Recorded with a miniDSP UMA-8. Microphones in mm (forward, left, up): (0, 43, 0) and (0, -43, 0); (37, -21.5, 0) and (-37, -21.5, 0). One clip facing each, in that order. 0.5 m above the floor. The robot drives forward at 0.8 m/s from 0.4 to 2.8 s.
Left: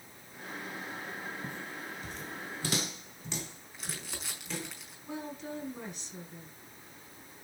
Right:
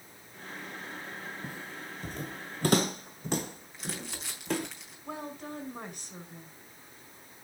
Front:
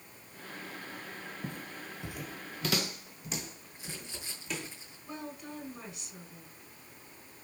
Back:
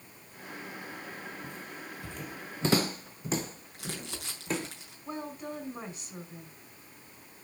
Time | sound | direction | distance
1.4 | footsteps | 5° right | 1.0 m
3.7 | crumpling | straight behind | 5 m
5.1 | a woman speaking | 135° right | 5.5 m